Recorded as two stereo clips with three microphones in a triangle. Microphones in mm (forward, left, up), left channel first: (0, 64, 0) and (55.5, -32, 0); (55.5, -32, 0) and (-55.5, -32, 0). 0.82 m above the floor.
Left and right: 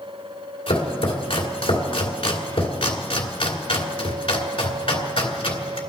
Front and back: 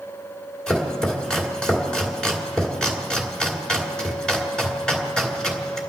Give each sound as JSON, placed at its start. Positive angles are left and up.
{"t": 0.7, "sound": "chopping", "azimuth_deg": 85, "distance_m": 2.0}